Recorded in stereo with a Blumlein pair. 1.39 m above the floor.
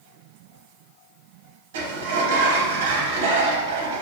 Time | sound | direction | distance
1.7 | a sliding door | 55° right | 0.8 m